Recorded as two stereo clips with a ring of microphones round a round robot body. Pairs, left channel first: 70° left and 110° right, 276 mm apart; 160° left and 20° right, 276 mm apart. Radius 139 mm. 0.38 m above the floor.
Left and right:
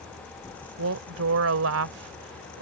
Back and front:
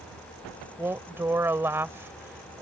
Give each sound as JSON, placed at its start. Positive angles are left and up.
{"t": 0.8, "sound": "a woman speaking", "azimuth_deg": -100}